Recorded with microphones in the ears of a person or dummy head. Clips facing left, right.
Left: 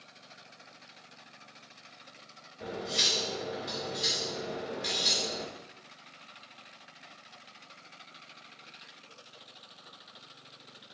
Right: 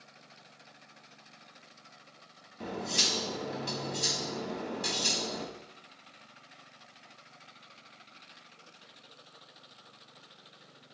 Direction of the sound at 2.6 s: 45° right (ahead or behind).